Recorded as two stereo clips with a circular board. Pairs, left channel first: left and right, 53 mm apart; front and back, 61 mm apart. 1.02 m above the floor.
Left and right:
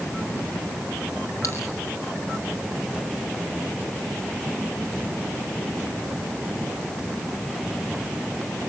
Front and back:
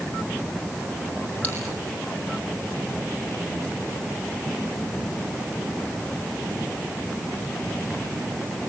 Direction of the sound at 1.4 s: 65° left.